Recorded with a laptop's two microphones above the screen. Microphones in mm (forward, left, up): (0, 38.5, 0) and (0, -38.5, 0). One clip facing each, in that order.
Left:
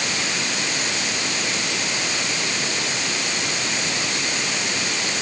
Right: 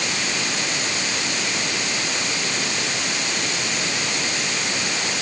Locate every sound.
Only background noise.